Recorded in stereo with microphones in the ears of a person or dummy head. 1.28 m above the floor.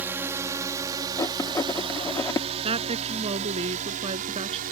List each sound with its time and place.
0.0 s a drone: 10° right (ahead or behind); by 4.7 s 45° right (ahead or behind)
1.2 s writing: 20° left (ahead or behind)
2.6 s a woman speaking: 30° right (ahead or behind)